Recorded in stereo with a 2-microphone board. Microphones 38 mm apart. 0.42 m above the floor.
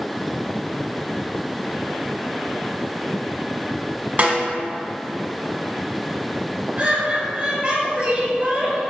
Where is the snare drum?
45° right (ahead or behind), 0.7 m.